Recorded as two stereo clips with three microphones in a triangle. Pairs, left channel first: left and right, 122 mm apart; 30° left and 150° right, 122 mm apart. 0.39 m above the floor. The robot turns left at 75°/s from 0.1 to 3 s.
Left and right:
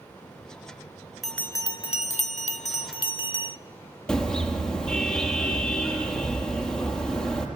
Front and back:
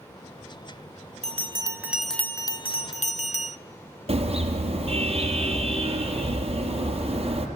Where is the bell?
Straight behind, 0.9 m; by 3.6 s 50° left, 0.9 m.